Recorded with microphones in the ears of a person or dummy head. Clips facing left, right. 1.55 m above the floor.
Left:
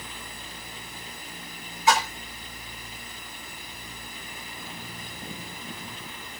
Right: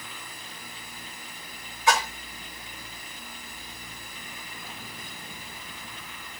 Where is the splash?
60° right (ahead or behind), 2.5 m.